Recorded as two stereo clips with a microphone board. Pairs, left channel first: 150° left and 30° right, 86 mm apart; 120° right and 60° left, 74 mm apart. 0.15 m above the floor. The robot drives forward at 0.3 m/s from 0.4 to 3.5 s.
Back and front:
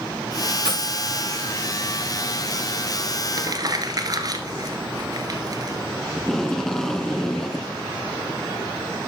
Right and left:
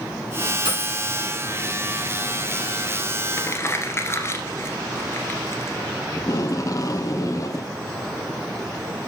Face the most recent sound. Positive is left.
turn(degrees=-130)